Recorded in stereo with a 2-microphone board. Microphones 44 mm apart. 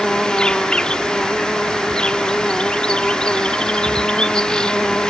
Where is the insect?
20° left (ahead or behind).